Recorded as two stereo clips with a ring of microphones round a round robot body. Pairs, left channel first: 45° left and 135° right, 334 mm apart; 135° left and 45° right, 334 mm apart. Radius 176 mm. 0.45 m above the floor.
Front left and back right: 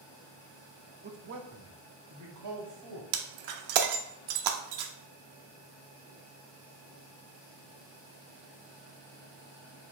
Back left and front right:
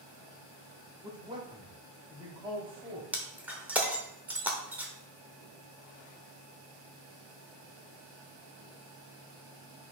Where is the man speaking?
110° right, 0.8 m; by 3.0 s 120° right, 1.5 m.